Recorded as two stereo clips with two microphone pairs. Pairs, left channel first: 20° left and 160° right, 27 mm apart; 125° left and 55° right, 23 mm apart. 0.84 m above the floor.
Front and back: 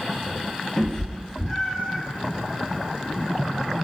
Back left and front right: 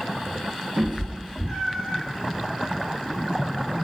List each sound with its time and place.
0.8 s a cat meowing: 45° right, 0.5 m; by 2.0 s 50° right, 1.3 m